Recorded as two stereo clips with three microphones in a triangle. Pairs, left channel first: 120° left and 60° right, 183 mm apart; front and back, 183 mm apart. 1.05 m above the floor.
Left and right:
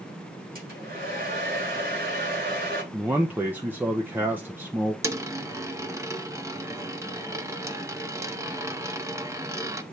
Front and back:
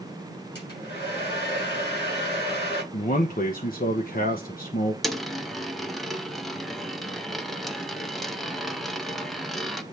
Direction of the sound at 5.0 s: 90° right.